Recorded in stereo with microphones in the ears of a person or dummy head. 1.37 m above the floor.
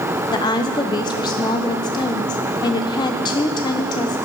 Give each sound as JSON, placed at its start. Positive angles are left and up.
{"t": 0.3, "sound": "a woman speaking", "side_deg": 20, "distance_m": 0.7}